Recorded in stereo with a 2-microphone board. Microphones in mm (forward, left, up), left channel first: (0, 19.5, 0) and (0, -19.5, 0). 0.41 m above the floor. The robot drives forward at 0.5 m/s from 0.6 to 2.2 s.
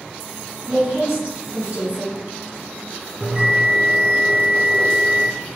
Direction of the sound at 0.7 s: 25° right (ahead or behind).